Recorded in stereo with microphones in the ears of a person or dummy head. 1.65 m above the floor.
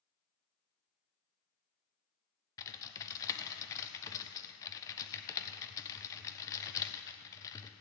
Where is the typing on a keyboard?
20° left (ahead or behind), 0.8 m.